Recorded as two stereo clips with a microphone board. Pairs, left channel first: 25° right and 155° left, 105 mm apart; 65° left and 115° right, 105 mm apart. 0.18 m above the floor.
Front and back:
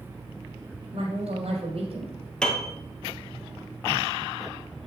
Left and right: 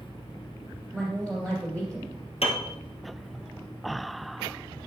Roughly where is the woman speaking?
Behind left.